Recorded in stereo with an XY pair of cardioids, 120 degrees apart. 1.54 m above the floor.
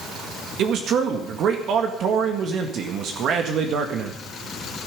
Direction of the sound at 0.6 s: 60° right.